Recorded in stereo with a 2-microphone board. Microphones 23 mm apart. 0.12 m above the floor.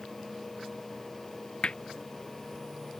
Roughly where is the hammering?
Left.